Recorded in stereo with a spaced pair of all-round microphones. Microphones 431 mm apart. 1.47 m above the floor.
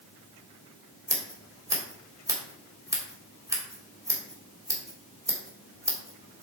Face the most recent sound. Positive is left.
turn(degrees=-10)  # may be behind; listen again after turning